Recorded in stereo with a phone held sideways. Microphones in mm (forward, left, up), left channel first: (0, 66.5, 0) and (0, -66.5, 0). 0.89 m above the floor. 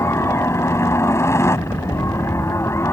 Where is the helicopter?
20° left (ahead or behind).